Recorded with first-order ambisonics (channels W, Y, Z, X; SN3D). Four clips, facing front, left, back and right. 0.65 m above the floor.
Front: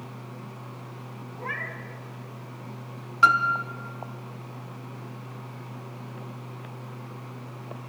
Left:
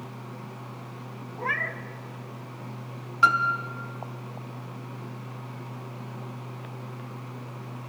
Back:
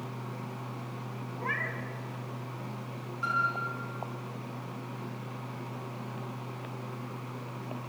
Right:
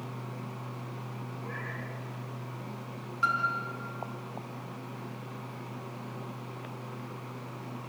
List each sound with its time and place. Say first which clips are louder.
1.4 s a cat meowing: left 13 dB, even; 90° left, 1.5 m
3.2 s a piano: left 7 dB, front 10 dB; 35° left, 1.9 m